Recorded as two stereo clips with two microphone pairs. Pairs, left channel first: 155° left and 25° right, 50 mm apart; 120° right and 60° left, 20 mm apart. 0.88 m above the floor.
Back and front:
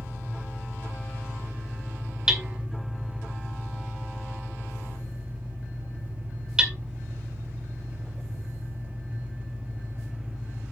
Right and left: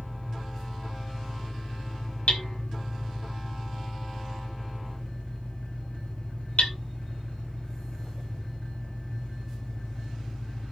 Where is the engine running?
95° right, 5.5 m.